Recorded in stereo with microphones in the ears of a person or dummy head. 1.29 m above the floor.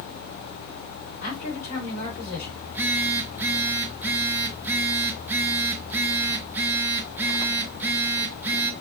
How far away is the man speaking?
About 4 m.